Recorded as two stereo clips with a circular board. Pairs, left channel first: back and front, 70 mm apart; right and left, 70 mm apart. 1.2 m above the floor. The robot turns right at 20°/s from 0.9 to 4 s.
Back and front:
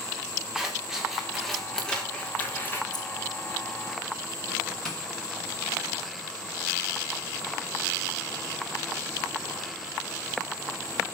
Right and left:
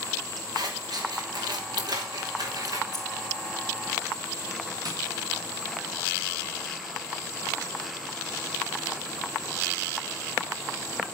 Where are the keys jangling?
Straight behind, 3.5 m; by 3.0 s 175° right, 3.5 m.